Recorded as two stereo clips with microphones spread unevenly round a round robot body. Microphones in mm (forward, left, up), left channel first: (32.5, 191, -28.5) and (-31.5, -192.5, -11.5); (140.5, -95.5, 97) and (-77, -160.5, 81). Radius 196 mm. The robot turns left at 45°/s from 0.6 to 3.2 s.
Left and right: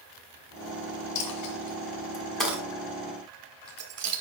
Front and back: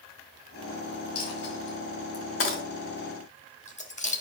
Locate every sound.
1.1 s a dropped coin: 50° left, 2.0 m; by 4.2 s 45° right, 2.0 m